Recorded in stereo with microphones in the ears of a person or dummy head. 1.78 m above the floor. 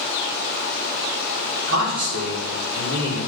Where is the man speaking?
60° right (ahead or behind), 4.5 m.